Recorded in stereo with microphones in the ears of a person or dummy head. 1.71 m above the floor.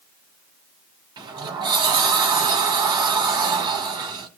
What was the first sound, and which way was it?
A sliding door, 20° right (ahead or behind).